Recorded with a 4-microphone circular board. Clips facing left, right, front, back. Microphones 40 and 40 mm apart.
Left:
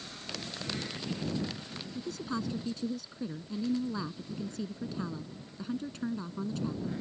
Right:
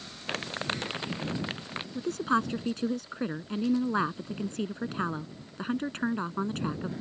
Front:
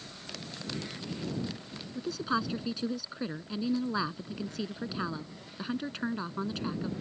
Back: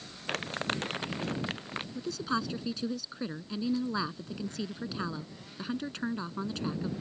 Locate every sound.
0.3 s crumpling: 135° right
1.9 s a woman speaking: 80° right